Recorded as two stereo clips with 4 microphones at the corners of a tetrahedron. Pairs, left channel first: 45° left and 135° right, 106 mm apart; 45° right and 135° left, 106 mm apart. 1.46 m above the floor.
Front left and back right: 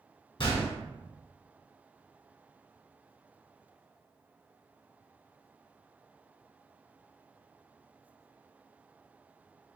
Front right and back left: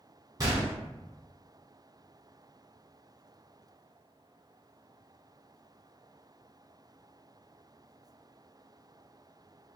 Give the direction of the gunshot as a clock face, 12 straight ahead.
9 o'clock.